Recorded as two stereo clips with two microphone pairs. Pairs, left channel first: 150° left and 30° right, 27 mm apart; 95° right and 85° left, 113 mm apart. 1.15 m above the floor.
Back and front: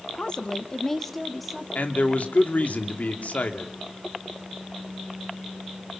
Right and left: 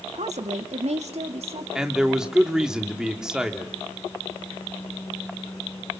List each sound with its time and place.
0.1 s a woman speaking: 105° left, 1.8 m; by 1.6 s 55° left, 3 m
1.8 s a man speaking: 170° left, 2.5 m